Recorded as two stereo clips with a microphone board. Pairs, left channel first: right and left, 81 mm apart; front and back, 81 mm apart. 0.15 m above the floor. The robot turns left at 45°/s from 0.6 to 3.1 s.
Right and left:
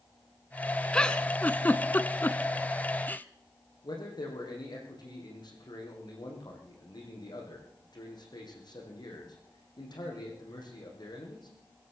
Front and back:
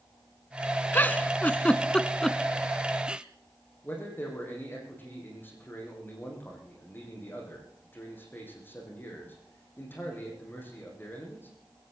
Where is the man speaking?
65° right, 6 m.